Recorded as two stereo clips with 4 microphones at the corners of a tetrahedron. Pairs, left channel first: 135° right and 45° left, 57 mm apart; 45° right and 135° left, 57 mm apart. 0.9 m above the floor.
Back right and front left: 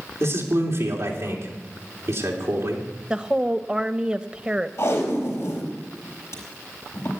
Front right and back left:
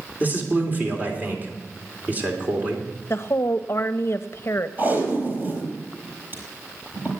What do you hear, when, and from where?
0.2 s a man speaking: 80° left, 3 m
3.1 s a woman speaking: 25° right, 0.7 m
4.8 s tape being pulled: 170° right, 4.5 m